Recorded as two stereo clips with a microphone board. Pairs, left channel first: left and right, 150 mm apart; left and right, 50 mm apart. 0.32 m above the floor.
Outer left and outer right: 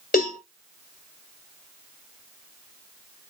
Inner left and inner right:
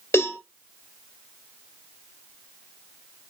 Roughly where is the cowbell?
Left.